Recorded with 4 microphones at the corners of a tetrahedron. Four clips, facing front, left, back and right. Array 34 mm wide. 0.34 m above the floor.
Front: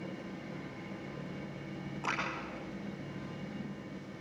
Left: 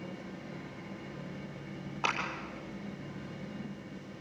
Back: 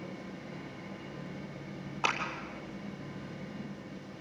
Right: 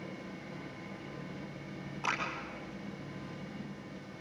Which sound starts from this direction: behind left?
A clap, at 2.0 s.